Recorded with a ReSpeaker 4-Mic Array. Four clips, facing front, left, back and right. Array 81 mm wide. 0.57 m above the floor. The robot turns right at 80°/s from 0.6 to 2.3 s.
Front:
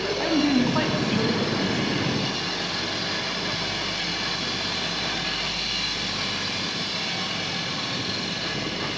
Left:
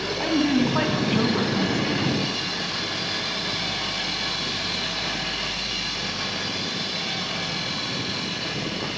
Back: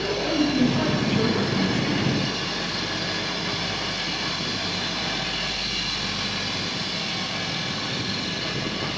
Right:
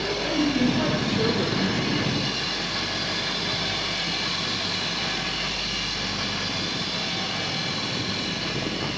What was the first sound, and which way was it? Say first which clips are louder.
A woman speaking: left 2 dB, front 1 dB; 40° left.